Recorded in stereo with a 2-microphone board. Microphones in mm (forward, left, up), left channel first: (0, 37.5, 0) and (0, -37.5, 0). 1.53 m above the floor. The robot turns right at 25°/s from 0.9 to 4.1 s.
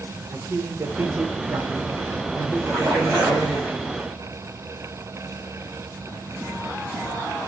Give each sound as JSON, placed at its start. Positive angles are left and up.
{"t": 0.3, "sound": "a man speaking", "azimuth_deg": -30, "distance_m": 0.7}
{"t": 2.6, "sound": "a splash", "side_deg": -5, "distance_m": 2.5}